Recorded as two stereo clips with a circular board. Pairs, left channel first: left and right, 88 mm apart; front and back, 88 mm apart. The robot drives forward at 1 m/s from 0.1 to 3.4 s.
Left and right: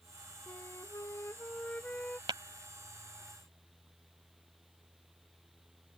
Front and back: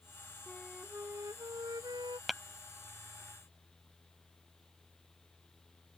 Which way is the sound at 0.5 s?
65° left.